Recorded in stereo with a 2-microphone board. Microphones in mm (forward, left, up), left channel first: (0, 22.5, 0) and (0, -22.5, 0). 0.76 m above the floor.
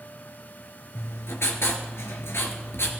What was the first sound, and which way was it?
Writing, 70° left (ahead or behind).